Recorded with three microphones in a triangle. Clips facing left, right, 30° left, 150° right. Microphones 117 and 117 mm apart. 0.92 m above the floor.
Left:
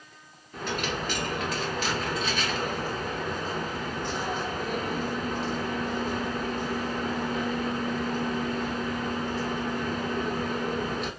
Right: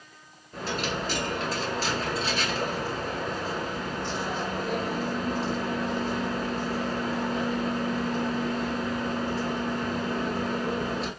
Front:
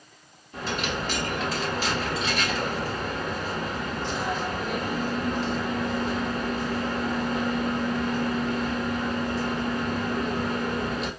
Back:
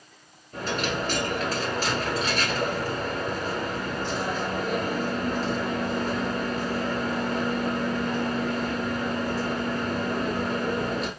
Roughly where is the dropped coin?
Behind right.